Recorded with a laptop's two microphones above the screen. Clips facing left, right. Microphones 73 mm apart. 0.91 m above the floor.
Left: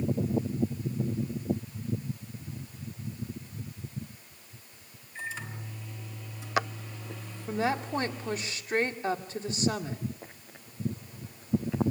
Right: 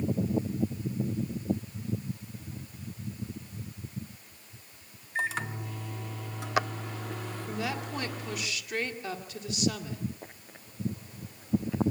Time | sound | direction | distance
5.2 | a microwave | 70° right (ahead or behind) | 2 m
7.5 | a woman speaking | 35° left (ahead or behind) | 2.5 m